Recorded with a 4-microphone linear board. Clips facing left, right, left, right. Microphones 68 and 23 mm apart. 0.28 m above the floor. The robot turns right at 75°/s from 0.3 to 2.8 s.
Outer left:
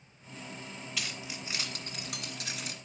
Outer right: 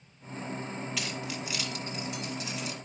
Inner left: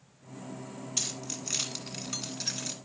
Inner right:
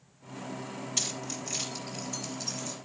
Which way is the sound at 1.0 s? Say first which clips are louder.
Outer right 5 dB, inner right 1 dB; centre (ahead or behind).